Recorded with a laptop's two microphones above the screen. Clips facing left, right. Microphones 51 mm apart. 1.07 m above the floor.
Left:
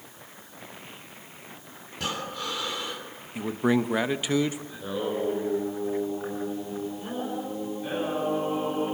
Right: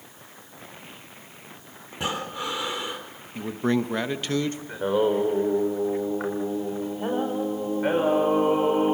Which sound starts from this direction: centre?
A man speaking, at 3.4 s.